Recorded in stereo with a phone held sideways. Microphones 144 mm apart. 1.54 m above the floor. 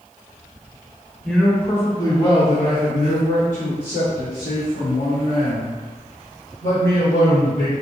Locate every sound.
1.2 s a man speaking: centre (ahead or behind), 1.0 m; by 7.8 s 70° left (ahead or behind), 3 m